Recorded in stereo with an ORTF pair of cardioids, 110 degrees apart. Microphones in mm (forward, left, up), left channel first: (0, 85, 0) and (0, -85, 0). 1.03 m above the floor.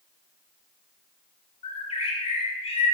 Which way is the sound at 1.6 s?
40° left.